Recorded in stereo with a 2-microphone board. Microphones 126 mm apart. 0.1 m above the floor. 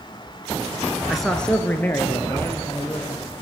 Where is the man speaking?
Centre (ahead or behind), 1.2 m; by 3.3 s 25° left (ahead or behind), 3 m.